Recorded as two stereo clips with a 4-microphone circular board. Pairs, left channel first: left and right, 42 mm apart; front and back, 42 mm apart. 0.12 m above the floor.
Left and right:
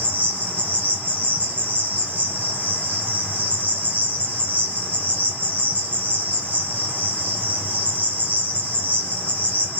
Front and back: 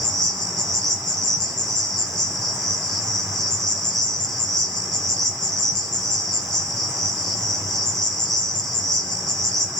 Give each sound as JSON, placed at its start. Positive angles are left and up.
{"t": 0.0, "sound": "an insect", "azimuth_deg": -85, "distance_m": 1.3}